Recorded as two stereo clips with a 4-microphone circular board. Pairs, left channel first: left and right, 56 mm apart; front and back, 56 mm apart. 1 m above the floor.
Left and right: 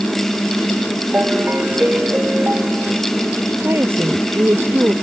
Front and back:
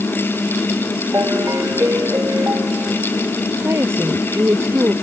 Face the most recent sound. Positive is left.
turn(degrees=-135)